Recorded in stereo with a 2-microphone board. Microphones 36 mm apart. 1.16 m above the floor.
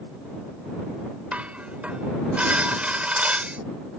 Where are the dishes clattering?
35° right (ahead or behind).